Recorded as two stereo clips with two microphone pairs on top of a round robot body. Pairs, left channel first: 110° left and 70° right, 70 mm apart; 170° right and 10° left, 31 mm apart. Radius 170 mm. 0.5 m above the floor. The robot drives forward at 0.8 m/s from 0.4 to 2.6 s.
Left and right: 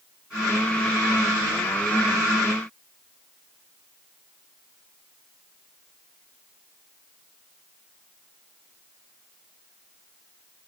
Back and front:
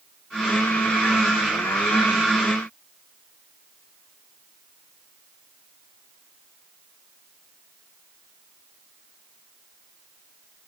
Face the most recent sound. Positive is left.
No sound to turn to.